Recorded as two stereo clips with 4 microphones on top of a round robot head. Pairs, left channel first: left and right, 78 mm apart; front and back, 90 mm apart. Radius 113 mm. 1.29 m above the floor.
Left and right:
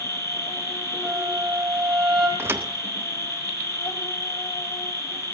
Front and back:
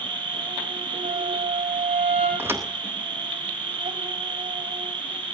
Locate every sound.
0.0 s an insect: 145° left, 2 m
1.0 s a flute: 175° left, 6.5 m
2.4 s a thud: 120° right, 0.6 m